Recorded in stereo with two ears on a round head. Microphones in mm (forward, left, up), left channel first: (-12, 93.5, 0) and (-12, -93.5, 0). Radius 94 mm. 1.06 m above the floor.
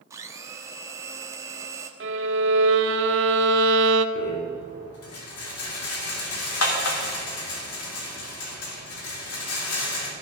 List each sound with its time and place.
0.1 s a blender: 15° right (ahead or behind), 1.2 m
2.0 s a violin: 60° right (ahead or behind), 0.8 m
4.2 s a rattle: 75° left (ahead or behind), 2.5 m